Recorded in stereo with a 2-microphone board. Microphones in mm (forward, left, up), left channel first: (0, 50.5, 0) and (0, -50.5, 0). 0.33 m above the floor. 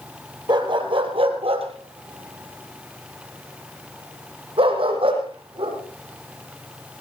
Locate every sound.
0.5 s a dog barking: 50° right (ahead or behind), 2.5 m; by 5.8 s 60° right (ahead or behind), 5 m